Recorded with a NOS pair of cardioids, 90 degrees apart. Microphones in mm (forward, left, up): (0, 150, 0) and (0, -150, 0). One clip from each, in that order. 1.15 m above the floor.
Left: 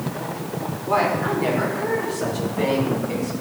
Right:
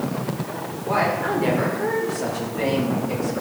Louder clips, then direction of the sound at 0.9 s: Left 1 dB; 5° left.